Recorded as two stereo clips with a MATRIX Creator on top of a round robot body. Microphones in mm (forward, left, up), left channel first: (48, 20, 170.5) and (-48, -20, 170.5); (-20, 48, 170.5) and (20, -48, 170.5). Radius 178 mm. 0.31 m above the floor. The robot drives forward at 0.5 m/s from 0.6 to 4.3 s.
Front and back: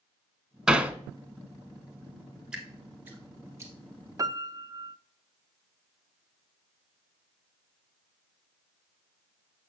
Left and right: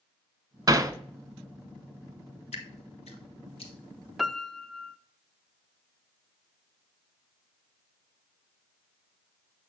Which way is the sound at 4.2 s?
155° right.